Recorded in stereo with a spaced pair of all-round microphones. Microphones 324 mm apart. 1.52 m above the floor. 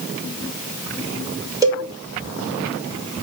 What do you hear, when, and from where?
1.6 s a cowbell: 10° right (ahead or behind), 5.5 m